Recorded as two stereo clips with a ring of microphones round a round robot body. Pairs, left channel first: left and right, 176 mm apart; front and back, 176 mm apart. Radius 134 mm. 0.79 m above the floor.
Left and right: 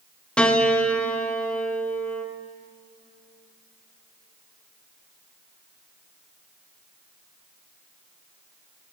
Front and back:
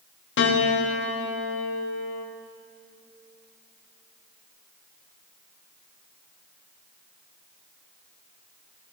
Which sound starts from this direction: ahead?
A piano, at 0.4 s.